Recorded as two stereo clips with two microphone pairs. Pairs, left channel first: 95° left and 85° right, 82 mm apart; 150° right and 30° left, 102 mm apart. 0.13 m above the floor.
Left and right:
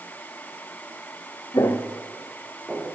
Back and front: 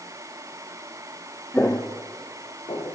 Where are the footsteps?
135° left, 0.6 m; by 3.0 s 165° right, 1.7 m.